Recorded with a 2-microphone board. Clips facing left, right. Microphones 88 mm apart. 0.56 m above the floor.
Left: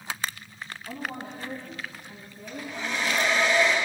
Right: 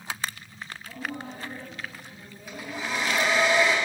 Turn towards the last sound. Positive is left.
turn(degrees=-10)  # may be behind; listen again after turning